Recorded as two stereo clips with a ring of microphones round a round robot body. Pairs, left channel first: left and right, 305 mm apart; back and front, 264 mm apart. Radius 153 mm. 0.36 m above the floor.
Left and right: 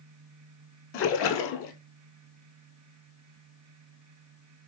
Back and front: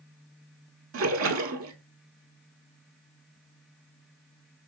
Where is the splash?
40° left, 0.6 m.